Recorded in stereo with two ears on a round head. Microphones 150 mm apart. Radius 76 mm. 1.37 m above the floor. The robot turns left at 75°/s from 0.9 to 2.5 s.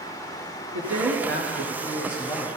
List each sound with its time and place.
0.7 s a woman speaking: 80° right, 4 m; by 2.5 s 160° left, 4 m